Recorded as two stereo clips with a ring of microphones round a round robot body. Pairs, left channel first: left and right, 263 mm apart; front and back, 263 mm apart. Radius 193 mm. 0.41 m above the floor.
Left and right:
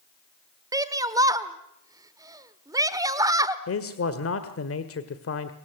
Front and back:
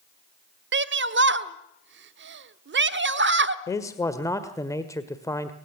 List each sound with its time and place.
0.7 s a shout: 165° right, 1.0 m
3.7 s a man speaking: 75° left, 1.6 m